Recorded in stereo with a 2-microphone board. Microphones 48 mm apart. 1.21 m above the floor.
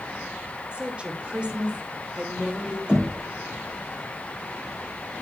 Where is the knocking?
20° right (ahead or behind), 4 m.